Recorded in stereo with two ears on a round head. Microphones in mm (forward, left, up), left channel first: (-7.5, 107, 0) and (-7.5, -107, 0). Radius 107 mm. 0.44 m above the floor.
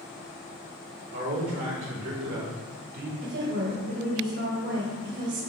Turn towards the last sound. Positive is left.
turn(degrees=-50)  # may be behind; listen again after turning